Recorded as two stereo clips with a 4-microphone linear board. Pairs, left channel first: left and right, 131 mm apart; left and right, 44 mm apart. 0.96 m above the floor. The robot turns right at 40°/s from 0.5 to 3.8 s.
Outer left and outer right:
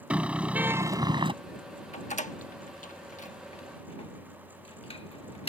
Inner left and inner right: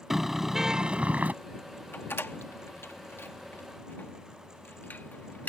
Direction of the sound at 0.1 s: 170° right.